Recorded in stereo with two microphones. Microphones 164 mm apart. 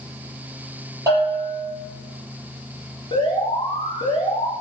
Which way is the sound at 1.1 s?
20° right (ahead or behind).